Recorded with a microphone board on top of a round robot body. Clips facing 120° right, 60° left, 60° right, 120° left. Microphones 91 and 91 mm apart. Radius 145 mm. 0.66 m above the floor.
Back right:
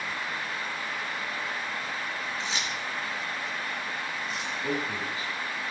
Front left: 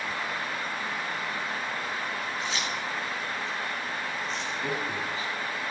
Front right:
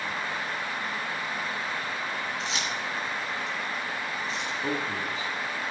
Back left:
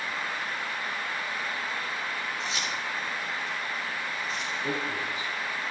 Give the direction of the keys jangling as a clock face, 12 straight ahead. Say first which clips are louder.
Front left 1 dB, front right 1 dB; 2 o'clock.